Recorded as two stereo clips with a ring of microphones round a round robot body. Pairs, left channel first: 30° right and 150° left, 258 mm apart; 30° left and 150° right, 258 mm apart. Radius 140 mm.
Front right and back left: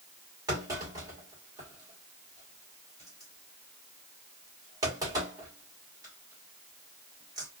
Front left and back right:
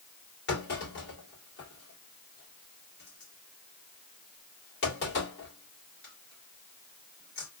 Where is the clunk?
75° left, 3 m.